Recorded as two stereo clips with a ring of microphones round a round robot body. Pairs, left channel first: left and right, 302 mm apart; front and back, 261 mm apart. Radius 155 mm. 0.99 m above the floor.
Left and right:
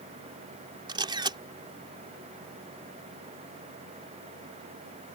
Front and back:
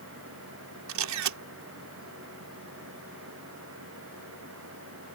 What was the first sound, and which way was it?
A camera shutter, 165° right.